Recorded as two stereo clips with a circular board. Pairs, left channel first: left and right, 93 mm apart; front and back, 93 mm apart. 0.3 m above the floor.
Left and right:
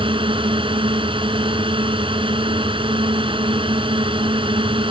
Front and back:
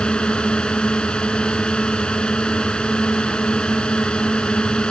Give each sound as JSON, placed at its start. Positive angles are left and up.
{"t": 0.0, "sound": "a drone", "azimuth_deg": -80}